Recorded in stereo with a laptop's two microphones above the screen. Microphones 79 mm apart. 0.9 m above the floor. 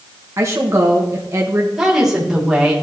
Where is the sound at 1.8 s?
5° right (ahead or behind), 2 m.